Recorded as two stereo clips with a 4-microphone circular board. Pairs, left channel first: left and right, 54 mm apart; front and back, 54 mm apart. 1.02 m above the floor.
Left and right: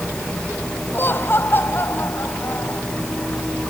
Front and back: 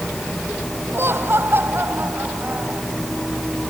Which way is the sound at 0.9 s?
140° left.